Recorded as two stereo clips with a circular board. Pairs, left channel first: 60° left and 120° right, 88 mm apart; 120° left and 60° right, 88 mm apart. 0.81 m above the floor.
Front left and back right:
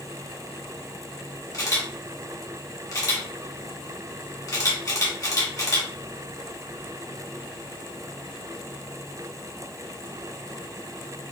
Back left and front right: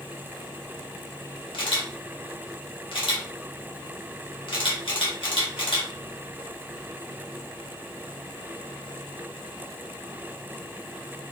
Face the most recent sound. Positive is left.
turn(degrees=110)